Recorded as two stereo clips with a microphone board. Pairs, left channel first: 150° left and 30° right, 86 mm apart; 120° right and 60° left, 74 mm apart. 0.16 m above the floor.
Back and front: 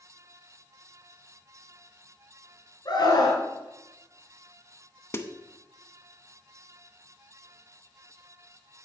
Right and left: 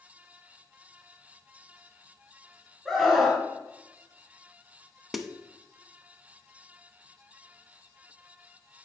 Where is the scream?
145° left, 2 m.